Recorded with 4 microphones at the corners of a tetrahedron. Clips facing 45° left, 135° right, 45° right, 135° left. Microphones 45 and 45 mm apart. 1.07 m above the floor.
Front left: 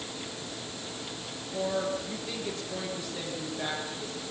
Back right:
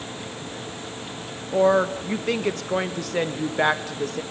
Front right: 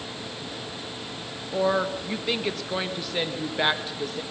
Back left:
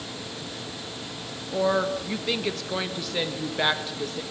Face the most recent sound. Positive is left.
turn(degrees=-130)